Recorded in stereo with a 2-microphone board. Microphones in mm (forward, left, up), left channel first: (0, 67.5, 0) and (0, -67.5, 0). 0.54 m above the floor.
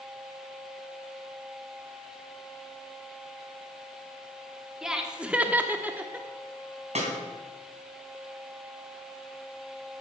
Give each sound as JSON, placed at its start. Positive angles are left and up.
{"t": 4.8, "sound": "laughter", "side_deg": -5, "distance_m": 1.3}
{"t": 7.0, "sound": "a snare drum", "side_deg": -55, "distance_m": 3.0}